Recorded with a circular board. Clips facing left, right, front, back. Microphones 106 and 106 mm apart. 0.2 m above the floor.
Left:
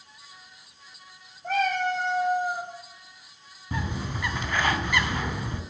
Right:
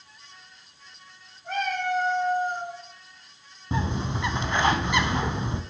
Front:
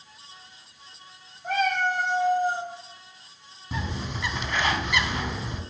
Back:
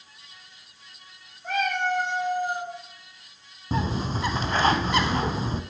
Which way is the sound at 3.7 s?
145° right.